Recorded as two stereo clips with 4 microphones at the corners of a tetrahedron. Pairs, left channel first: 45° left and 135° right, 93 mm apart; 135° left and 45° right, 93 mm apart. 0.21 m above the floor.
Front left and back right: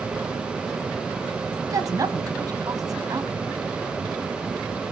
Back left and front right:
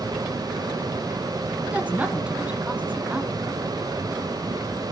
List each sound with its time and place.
1.7 s a woman speaking: 115° right, 1.6 m